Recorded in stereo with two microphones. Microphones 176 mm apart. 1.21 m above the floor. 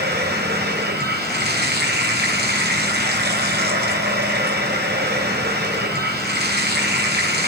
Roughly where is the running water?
Right.